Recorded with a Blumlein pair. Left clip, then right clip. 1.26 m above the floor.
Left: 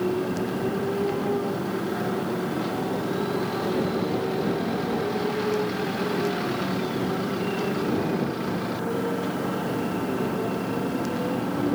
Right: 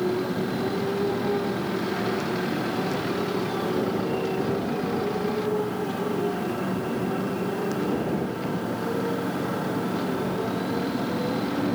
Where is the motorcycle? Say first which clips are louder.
Even; straight ahead.